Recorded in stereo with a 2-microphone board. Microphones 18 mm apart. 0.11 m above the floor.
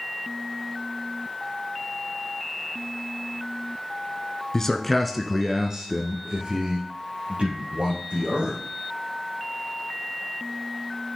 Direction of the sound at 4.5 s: 25° left (ahead or behind).